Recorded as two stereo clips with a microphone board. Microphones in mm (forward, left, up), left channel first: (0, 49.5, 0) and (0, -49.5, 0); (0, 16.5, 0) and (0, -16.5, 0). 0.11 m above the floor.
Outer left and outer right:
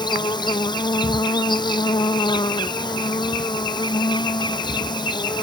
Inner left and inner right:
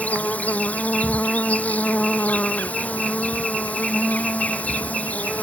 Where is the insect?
50° left (ahead or behind).